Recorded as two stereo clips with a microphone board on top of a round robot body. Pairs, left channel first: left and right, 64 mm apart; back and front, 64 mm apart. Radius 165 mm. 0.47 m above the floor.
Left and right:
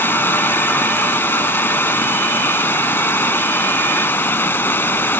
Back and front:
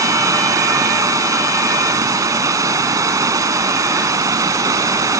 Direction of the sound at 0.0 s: 30° left.